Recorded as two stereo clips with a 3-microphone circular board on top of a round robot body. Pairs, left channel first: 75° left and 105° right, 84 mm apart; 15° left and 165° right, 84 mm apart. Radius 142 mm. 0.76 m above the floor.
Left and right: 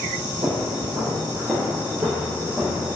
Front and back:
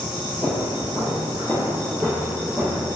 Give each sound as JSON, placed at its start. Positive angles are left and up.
{"t": 0.4, "sound": "footsteps", "azimuth_deg": -55, "distance_m": 1.0}